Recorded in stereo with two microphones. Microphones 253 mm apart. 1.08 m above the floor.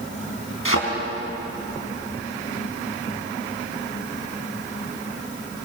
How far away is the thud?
About 4.5 m.